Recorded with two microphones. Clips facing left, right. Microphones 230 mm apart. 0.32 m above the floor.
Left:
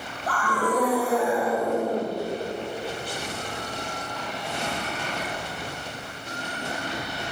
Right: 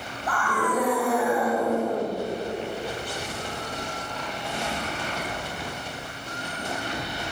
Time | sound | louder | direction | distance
0.3 | a scream | left 1 dB | 40° left (ahead or behind) | 2.5 m